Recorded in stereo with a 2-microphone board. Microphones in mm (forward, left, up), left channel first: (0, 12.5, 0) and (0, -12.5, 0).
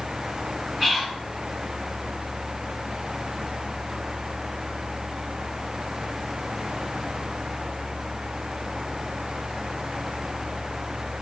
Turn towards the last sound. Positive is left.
turn(degrees=10)  # may be behind; listen again after turning